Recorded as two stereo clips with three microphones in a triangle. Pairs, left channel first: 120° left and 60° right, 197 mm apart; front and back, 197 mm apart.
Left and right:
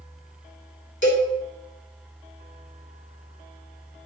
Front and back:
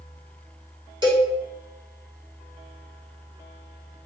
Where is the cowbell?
115° left, 2.5 m.